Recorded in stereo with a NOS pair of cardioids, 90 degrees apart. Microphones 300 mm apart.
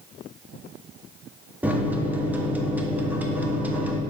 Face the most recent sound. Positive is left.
turn(degrees=-5)